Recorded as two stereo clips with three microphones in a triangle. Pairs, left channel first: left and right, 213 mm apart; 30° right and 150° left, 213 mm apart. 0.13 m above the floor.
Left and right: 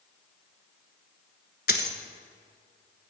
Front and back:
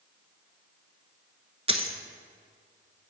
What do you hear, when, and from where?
1.7 s a dropped coin: 100° left, 0.9 m